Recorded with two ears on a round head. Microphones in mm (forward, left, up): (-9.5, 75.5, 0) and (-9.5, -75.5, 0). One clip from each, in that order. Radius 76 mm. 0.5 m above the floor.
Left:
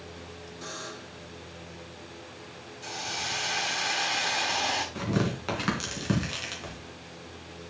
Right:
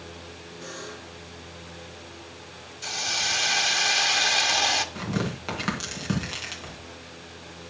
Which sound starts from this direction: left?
A buzzer, at 0.6 s.